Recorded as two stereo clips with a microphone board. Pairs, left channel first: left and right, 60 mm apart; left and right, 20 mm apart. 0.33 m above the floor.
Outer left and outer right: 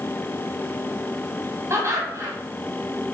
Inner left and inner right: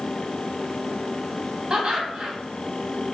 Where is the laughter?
45° right (ahead or behind), 2.5 m.